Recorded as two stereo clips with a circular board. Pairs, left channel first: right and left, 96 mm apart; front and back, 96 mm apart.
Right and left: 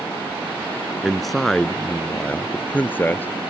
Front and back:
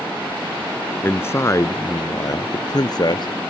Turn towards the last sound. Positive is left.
turn(degrees=-25)